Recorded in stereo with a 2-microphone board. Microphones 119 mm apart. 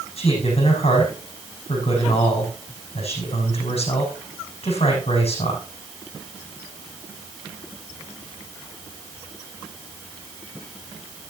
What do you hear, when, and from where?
0.2 s a man speaking: 55° left (ahead or behind), 6 m